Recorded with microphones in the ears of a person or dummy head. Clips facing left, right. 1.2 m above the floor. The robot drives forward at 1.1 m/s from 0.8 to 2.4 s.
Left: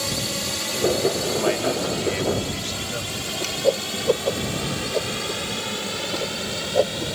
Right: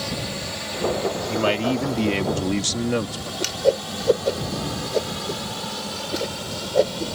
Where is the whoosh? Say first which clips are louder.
Right 1 dB; 20° right (ahead or behind).